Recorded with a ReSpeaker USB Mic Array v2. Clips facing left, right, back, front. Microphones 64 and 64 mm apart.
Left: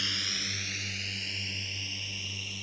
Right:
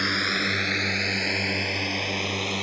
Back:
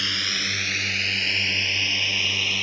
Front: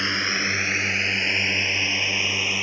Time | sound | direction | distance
0.0 | a drone | 55° right | ?